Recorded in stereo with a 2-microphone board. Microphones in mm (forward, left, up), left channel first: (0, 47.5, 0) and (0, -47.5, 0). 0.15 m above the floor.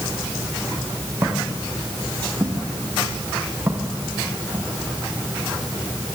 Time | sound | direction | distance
1.2 | footsteps | 20° right (ahead or behind) | 5.5 m